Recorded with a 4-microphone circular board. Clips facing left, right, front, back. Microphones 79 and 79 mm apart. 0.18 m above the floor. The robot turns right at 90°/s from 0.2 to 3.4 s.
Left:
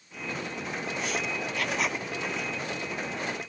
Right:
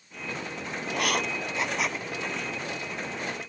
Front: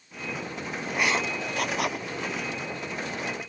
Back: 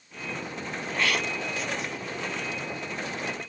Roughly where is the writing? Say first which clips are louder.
Right 6 dB, front 1 dB; right.